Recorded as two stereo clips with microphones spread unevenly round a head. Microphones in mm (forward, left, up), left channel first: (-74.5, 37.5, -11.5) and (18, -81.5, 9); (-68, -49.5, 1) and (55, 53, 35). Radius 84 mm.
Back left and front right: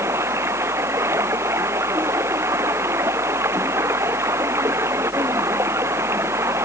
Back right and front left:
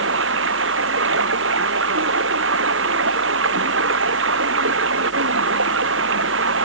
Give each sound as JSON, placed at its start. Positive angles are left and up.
{"t": 0.0, "sound": "running water", "azimuth_deg": 25}